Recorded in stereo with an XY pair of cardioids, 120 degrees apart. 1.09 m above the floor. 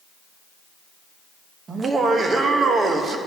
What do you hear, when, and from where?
1.7 s laughter: 35° right, 1.1 m